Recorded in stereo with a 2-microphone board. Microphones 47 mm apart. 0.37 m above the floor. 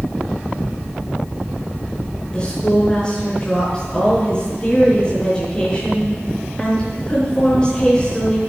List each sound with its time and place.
2.3 s a woman speaking: 20° left (ahead or behind), 5.5 m